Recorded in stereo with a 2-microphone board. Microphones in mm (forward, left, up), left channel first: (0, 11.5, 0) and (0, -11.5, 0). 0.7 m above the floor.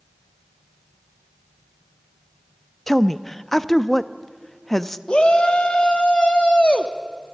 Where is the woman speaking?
15° left (ahead or behind), 0.6 m.